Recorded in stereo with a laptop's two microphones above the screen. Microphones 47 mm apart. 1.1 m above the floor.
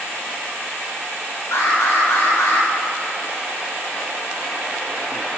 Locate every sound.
1.5 s an alarm: 80° left, 1.8 m